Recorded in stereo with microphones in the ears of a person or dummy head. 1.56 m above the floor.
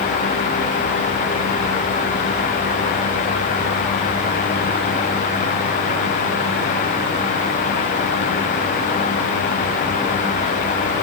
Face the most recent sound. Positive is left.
No sound to turn to.